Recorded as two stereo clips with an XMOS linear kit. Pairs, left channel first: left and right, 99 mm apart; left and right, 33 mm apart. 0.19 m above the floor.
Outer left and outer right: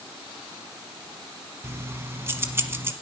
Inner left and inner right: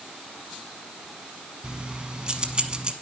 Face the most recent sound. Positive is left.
turn(degrees=-25)  # may be behind; listen again after turning